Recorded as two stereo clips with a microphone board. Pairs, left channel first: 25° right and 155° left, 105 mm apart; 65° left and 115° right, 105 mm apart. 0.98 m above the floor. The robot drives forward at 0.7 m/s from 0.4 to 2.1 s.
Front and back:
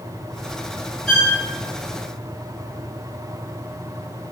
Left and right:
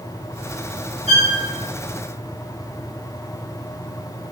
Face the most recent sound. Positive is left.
turn(degrees=-135)